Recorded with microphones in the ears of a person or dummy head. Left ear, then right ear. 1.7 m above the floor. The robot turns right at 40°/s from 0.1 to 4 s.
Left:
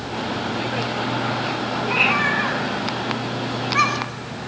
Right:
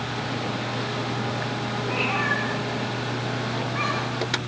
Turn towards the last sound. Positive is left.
turn(degrees=70)  # may be behind; listen again after turning